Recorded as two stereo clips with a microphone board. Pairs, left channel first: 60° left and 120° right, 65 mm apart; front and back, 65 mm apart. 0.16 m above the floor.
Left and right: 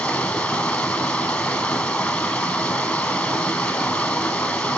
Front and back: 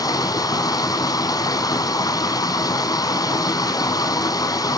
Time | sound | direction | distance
0.0 | running water | 10° right | 1.1 m